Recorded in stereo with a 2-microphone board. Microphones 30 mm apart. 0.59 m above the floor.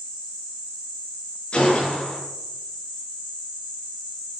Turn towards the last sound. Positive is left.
turn(degrees=35)  # may be behind; listen again after turning